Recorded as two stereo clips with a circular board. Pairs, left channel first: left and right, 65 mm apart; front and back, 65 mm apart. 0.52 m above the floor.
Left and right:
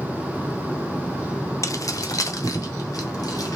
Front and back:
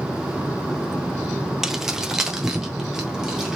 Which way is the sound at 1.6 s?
95° left.